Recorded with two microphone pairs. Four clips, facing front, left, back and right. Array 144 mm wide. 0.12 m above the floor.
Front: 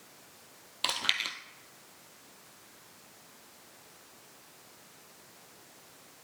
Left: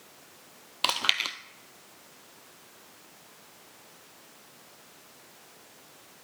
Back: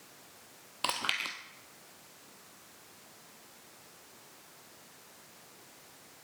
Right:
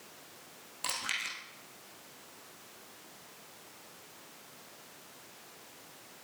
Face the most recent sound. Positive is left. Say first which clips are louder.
# left 9 dB, back 1 dB
turn(degrees=90)